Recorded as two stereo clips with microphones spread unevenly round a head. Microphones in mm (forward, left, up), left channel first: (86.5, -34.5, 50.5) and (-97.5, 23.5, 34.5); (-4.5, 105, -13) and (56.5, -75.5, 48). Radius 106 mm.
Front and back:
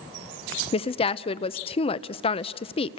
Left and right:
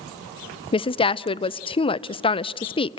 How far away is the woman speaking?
About 0.6 m.